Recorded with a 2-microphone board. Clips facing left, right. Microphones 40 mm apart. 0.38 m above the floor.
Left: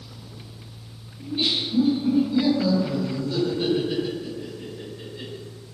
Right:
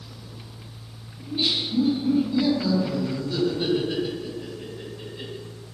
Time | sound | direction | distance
1.2 | laughter | 20° left (ahead or behind) | 1.3 m